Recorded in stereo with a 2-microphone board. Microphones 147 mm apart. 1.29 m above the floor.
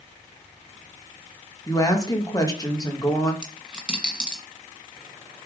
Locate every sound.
1.7 s a woman speaking: 25° left (ahead or behind), 2 m
3.4 s a dropped coin: 5° right (ahead or behind), 1.9 m